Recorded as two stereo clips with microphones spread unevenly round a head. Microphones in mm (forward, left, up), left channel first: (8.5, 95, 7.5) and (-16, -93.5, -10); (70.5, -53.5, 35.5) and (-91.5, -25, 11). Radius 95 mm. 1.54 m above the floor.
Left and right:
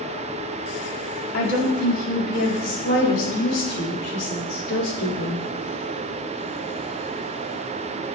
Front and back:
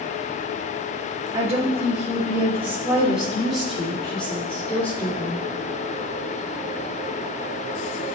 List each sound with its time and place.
1.3 s a woman speaking: 100° left, 3.5 m; by 5.5 s 70° left, 4.5 m